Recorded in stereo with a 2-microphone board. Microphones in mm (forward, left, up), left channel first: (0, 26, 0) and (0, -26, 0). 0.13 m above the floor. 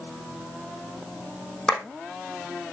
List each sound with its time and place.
1.7 s a clap: 15° left (ahead or behind), 4.5 m